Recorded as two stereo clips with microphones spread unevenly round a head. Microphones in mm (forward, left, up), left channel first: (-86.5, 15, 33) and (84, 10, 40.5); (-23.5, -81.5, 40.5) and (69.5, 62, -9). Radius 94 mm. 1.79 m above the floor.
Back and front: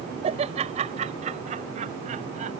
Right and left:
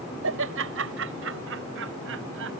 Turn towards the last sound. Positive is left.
turn(degrees=45)